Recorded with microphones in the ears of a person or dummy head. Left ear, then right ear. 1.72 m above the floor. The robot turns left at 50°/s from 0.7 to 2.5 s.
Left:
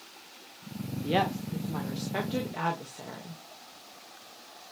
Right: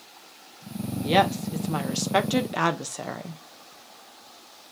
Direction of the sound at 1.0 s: 20° right.